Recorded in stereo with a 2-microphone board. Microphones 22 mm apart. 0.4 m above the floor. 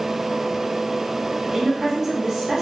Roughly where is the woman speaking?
Right.